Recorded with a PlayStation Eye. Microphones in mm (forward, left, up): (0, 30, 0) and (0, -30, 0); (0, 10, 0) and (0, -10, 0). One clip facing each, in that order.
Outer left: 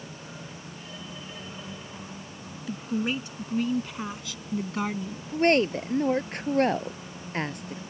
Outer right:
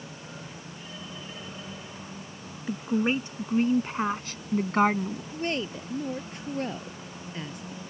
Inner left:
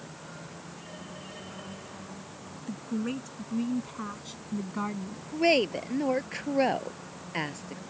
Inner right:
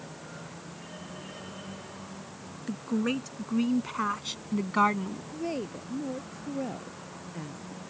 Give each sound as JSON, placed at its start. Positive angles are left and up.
{"t": 2.7, "sound": "a woman speaking", "side_deg": -30}
{"t": 5.3, "sound": "a woman speaking", "side_deg": 60}